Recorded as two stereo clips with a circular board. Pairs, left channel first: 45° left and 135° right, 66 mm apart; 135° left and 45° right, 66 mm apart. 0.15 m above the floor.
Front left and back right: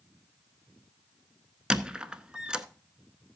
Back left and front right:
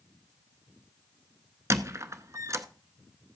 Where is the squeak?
65° right, 0.6 m.